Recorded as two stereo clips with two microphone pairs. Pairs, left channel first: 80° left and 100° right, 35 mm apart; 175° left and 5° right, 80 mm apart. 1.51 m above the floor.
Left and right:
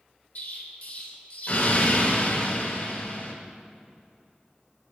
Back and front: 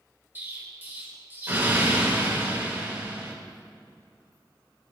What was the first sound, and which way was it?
An explosion, 55° left.